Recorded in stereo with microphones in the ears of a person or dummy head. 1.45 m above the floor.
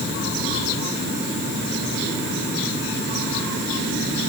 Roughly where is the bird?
No bird in this recording.